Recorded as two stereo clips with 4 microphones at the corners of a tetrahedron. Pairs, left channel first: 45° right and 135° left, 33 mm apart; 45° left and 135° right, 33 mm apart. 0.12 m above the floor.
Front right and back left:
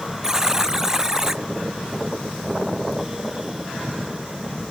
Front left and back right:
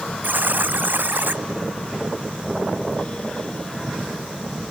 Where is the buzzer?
150° right.